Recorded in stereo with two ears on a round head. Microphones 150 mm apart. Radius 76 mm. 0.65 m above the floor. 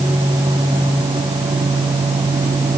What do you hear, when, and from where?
Only background noise.